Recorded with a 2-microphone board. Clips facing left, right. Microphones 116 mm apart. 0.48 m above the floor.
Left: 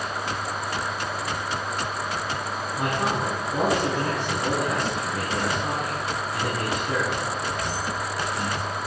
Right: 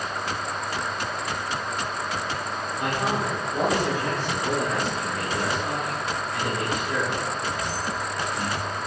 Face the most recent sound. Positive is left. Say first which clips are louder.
# even
turn(degrees=40)  # may be behind; listen again after turning